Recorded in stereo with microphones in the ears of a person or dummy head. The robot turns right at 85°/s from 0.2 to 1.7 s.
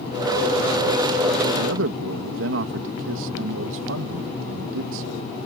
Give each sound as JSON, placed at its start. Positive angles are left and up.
{"t": 1.5, "sound": "a man speaking", "side_deg": -80}